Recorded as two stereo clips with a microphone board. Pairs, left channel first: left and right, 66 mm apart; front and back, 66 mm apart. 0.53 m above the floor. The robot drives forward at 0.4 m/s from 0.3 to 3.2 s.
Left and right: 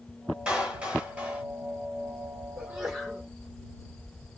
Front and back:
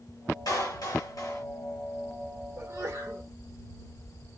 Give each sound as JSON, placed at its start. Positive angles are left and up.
{"t": 0.5, "sound": "a clap", "azimuth_deg": -15, "distance_m": 1.7}
{"t": 2.6, "sound": "a sneeze", "azimuth_deg": -170, "distance_m": 1.6}